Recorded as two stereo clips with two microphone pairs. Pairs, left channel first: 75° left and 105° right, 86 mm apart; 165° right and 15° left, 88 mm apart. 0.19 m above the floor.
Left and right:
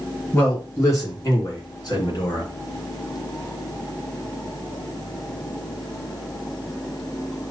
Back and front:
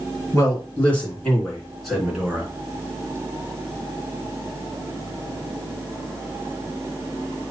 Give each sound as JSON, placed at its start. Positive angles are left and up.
{"t": 0.3, "sound": "a man speaking", "azimuth_deg": 135, "distance_m": 3.0}